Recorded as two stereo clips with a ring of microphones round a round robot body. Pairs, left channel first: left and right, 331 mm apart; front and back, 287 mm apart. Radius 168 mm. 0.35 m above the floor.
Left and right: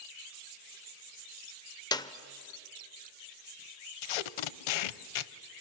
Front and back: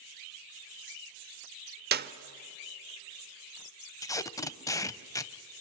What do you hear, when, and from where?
1.9 s a clap: 160° left, 0.7 m
4.0 s tape being pulled: 80° left, 0.6 m